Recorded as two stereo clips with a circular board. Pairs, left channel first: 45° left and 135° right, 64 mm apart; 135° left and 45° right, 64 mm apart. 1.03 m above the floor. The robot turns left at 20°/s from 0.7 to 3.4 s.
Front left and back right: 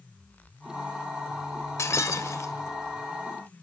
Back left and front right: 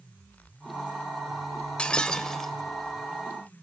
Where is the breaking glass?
65° left, 1.1 m; by 2.5 s 50° left, 1.1 m.